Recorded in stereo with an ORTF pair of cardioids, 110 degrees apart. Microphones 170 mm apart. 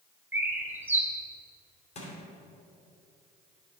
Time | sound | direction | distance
0.3 | a bird | 10° right | 1.5 m
1.9 | crushing | 40° left | 2.5 m